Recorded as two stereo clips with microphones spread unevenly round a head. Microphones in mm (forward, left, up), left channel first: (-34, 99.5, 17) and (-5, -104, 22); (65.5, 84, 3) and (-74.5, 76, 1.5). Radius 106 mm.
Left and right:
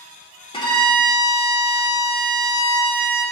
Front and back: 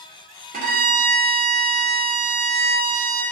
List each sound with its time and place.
0.5 s a violin: 165° left, 2.5 m